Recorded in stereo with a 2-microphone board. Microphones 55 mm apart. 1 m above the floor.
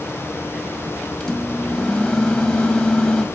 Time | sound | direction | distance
1.2 | a microwave | 15° left (ahead or behind) | 1.0 m